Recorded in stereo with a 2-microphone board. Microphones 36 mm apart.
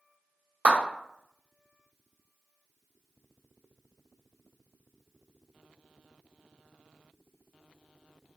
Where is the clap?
50° right (ahead or behind), 1.5 m.